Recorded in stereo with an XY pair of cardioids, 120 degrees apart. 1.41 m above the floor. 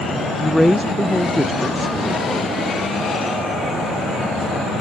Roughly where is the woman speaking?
Ahead.